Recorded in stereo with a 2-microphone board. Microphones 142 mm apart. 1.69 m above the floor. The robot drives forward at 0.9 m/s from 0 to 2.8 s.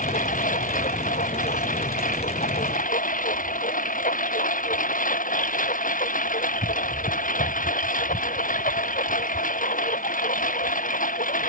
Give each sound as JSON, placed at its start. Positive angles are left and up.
{"t": 0.0, "sound": "a lawn mower", "side_deg": 80}